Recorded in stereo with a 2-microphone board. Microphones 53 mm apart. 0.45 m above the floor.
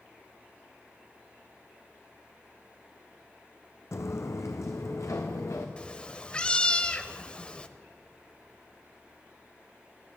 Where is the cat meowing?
20° left (ahead or behind), 0.7 m.